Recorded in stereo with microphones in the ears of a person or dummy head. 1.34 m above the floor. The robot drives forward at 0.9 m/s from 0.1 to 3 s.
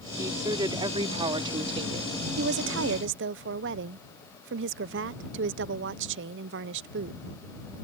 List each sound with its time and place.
0.2 s a woman speaking: 20° right (ahead or behind); by 2.1 s 35° right (ahead or behind)
2.4 s a woman speaking: 55° right (ahead or behind); by 7.2 s 60° right (ahead or behind)